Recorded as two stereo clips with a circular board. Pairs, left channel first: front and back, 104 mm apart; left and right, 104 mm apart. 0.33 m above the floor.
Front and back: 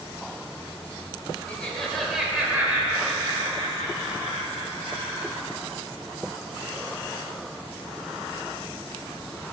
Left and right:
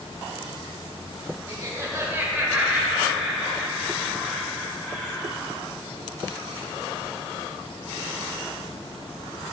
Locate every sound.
1.5 s laughter: 65° right, 1.0 m; by 5.5 s 160° left, 1.9 m